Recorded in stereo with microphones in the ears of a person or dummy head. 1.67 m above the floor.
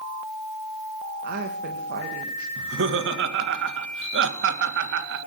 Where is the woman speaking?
50° right (ahead or behind), 1.4 m.